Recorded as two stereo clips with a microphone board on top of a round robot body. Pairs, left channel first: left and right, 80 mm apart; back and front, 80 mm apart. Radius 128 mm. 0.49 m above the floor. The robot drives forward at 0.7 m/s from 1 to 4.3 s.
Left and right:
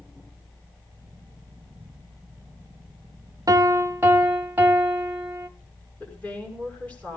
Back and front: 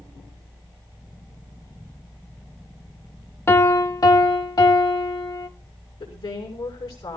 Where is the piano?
125° right, 0.7 m; by 5.5 s 155° right, 1.0 m.